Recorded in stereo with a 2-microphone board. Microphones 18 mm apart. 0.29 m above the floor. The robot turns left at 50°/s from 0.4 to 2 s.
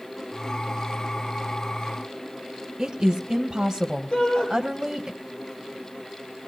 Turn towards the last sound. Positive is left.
turn(degrees=50)  # may be behind; listen again after turning